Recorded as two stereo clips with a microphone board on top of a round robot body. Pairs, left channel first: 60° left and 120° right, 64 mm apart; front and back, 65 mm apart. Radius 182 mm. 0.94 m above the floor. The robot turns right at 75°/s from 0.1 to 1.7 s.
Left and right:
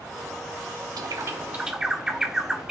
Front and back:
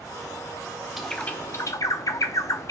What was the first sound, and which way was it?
A bird, 95° right.